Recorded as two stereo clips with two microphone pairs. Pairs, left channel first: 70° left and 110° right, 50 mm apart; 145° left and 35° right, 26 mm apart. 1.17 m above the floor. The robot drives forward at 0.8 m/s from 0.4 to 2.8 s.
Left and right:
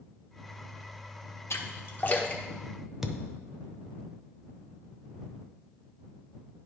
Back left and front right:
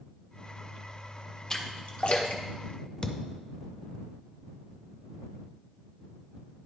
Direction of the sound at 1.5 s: 85° left.